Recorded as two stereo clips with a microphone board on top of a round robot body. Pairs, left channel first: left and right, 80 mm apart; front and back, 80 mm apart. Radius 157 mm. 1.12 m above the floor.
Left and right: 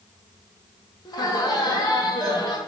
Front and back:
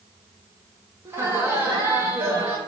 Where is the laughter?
120° left, 1.2 m.